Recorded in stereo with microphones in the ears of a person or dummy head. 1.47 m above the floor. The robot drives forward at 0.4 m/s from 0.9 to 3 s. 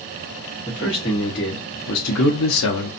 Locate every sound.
0.7 s a man speaking: 35° left (ahead or behind), 1.0 m; by 2.9 s 75° left (ahead or behind), 0.5 m